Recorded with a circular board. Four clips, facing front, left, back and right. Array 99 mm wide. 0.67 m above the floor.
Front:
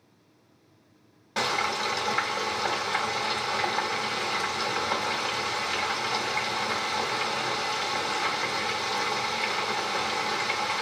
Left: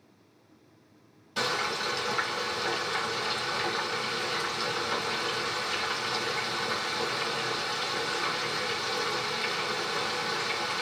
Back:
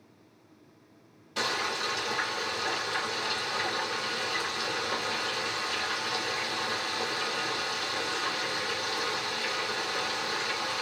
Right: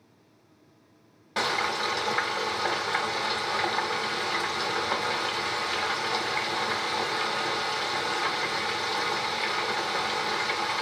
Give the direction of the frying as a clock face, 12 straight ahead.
2 o'clock.